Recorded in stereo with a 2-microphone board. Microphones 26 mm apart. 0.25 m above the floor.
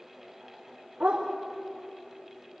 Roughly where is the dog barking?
Right.